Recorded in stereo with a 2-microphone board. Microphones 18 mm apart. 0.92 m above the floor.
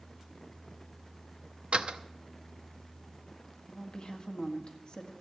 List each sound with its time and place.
1.7 s a door slam: 85° right, 0.7 m
3.7 s a woman speaking: 60° left (ahead or behind), 1.6 m